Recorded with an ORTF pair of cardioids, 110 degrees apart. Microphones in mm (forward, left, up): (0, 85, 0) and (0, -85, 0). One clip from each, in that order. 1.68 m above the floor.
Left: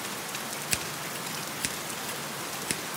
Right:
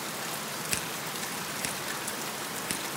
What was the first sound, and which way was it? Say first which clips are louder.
Scissors: left 2 dB; 20° left.